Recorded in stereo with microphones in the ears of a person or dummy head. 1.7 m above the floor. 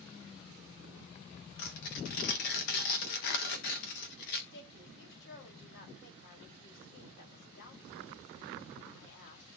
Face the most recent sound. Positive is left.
turn(degrees=55)  # may be behind; listen again after turning